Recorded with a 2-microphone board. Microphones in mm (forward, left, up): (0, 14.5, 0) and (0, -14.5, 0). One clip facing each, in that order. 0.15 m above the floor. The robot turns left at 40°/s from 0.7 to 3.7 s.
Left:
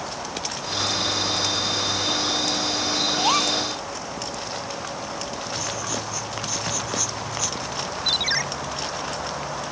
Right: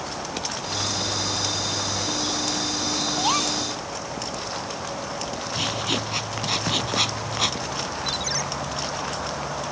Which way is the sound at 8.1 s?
40° left (ahead or behind).